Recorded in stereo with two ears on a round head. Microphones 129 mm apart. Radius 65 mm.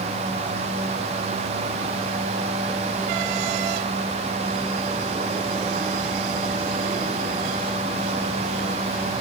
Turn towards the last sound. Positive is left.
No sound to turn to.